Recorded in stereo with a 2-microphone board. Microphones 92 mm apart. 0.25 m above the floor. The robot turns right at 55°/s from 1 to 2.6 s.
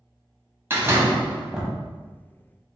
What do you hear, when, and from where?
0.7 s a door slam: 45° right, 0.9 m; by 1.7 s 5° right, 0.9 m